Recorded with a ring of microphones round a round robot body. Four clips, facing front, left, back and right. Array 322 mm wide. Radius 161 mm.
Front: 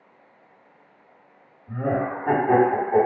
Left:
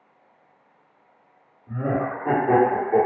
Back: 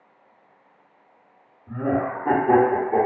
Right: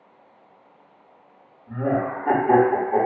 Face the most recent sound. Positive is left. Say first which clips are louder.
# right 2 dB, back 1 dB
turn(degrees=150)